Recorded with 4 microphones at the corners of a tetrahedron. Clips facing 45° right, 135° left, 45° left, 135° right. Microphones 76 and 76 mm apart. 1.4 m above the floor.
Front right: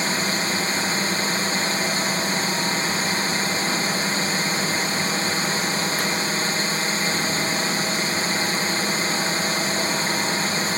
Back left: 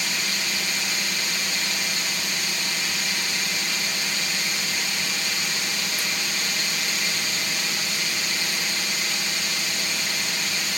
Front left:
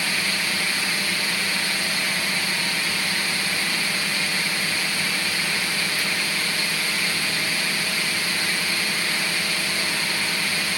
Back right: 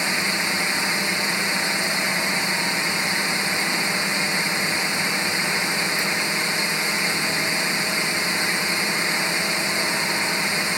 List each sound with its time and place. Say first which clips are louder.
0.0 s a drone: front right 6 dB, back right 2 dB; 75° right